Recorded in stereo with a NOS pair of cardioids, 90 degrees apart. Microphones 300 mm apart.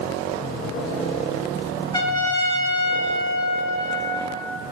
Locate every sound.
1.9 s a trumpet: 15° left, 1.4 m